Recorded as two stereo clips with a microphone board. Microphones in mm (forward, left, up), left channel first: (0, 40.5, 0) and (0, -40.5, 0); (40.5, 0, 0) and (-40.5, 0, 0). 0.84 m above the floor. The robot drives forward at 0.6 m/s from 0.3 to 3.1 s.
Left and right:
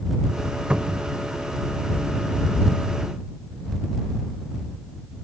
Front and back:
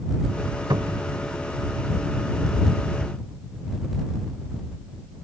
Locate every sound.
0.7 s a cupboard door: 165° right; by 1.1 s 170° right